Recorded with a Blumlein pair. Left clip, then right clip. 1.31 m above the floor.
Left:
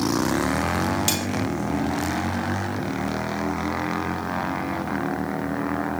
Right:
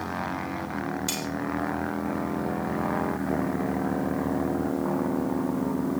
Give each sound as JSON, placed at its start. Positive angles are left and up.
{"t": 1.1, "sound": "cutlery clinking", "azimuth_deg": 45, "distance_m": 1.6}